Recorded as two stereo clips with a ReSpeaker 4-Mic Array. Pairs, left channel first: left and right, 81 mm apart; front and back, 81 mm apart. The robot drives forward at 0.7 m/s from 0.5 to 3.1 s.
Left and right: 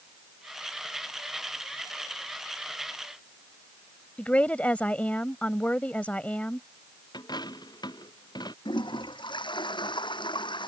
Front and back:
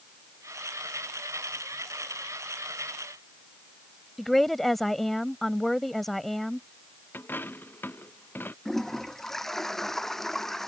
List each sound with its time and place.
4.2 s a woman speaking: 80° left
7.1 s a dropped coin: 65° left
8.7 s a toilet flushing: 85° left